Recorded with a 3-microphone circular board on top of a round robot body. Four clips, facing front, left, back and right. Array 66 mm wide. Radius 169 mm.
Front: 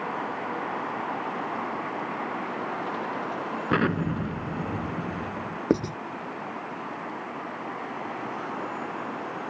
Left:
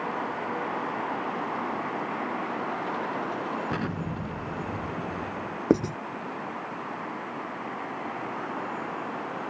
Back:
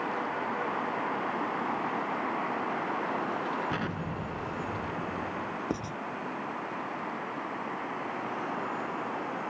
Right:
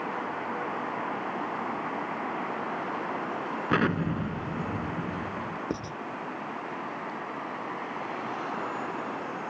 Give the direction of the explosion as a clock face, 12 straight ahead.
1 o'clock.